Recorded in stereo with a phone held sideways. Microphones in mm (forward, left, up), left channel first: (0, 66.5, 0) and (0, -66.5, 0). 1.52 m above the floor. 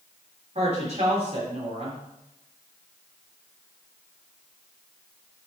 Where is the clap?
I don't hear a clap.